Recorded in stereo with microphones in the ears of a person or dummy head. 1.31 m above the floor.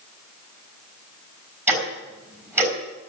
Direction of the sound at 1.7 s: 15° right (ahead or behind).